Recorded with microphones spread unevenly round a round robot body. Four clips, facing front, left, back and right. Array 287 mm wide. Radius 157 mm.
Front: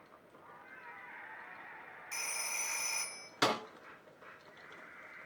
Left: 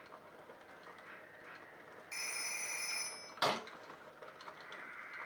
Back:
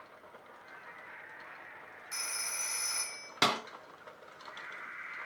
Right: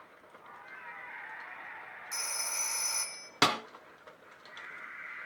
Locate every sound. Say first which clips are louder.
2.1 s a phone ringing: right 5 dB, even; 75° right, 1.2 m
3.4 s a snare drum: right 6 dB, back 1 dB; 110° right, 2.5 m